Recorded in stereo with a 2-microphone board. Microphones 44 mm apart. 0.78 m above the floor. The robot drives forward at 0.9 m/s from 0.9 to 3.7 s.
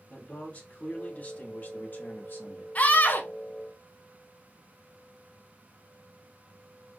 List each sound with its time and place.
0.1 s a man speaking: 35° left (ahead or behind), 3 m; by 2.6 s 55° left (ahead or behind), 1.9 m
2.8 s a scream: 35° left (ahead or behind), 1.0 m; by 3.3 s 50° left (ahead or behind), 0.8 m